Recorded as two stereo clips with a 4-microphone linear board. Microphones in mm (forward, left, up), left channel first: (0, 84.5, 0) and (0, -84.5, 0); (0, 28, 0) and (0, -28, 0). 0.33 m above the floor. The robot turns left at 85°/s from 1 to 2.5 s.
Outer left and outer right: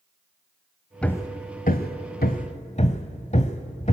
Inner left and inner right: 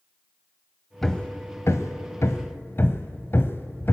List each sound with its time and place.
1.0 s hammering: 5° left (ahead or behind), 1.1 m; by 3.9 s 40° left (ahead or behind), 1.1 m